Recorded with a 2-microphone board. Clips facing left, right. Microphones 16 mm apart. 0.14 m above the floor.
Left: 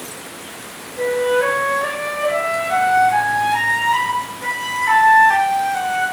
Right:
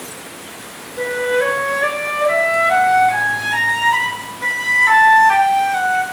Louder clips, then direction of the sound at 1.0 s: Left 1 dB; 55° right (ahead or behind).